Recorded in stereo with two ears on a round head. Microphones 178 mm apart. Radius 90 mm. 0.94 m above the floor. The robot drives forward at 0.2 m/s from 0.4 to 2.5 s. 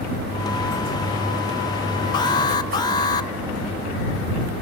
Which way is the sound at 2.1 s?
20° left (ahead or behind).